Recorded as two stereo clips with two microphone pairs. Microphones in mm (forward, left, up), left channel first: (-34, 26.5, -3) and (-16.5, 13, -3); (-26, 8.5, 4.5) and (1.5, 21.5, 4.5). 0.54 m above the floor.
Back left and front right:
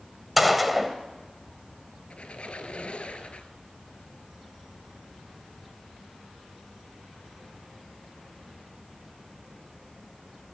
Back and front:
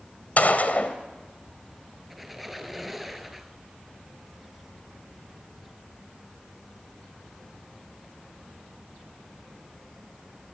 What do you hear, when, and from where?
0.4 s a gunshot: 130° right, 2 m
2.1 s a squeak: 115° left, 2.5 m